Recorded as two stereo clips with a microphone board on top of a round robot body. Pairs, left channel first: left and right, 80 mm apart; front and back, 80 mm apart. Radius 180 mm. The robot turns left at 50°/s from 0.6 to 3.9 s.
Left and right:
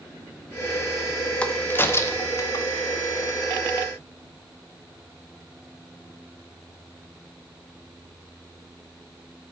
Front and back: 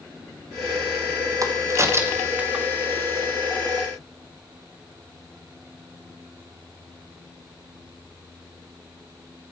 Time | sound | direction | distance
1.4 | a crack | 160° left | 1.1 m